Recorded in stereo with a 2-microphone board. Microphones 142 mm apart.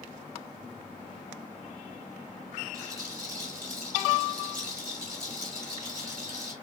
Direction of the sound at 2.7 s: 80° right.